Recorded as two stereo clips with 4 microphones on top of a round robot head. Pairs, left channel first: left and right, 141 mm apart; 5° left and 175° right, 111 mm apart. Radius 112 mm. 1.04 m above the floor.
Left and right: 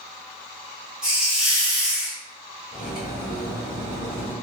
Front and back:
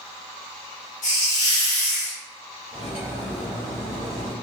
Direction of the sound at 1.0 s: 10° right.